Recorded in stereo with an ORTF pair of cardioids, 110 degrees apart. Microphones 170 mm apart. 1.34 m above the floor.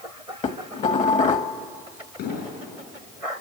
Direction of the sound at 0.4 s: 45° left.